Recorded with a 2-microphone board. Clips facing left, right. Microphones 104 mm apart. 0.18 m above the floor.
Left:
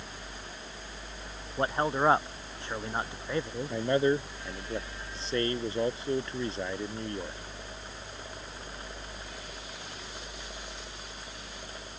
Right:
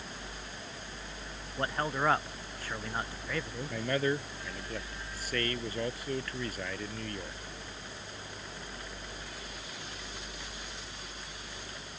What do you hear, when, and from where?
1.6 s a man speaking: 25° left (ahead or behind)
3.7 s a man speaking: 25° left (ahead or behind)